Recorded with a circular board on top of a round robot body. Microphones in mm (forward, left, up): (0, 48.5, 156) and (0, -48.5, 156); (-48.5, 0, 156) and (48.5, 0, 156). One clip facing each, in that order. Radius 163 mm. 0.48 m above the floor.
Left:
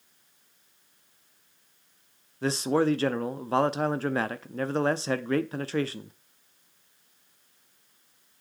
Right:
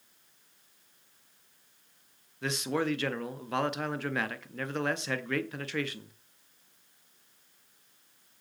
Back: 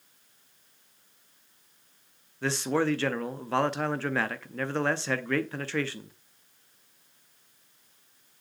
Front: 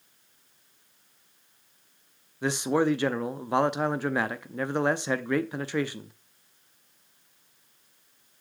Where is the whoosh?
I don't hear a whoosh.